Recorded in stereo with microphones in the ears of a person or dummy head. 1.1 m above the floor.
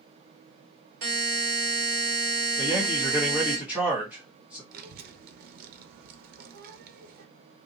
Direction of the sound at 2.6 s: 5° right (ahead or behind).